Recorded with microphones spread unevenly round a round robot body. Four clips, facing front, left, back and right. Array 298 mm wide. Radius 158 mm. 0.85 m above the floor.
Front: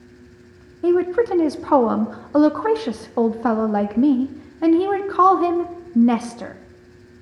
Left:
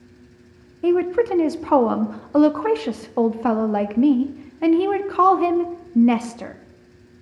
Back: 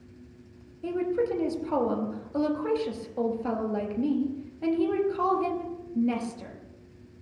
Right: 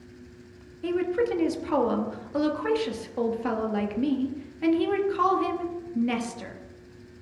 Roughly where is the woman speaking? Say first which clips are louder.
Left 7 dB, front 10 dB; ahead left.